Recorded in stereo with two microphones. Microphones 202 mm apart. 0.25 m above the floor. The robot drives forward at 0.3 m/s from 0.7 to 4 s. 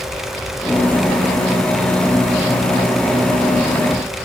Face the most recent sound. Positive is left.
No sound to turn to.